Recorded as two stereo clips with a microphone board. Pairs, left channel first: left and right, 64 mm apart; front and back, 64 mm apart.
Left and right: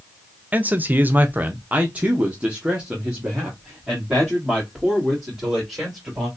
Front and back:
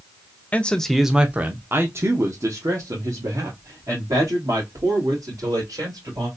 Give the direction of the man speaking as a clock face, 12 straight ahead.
2 o'clock.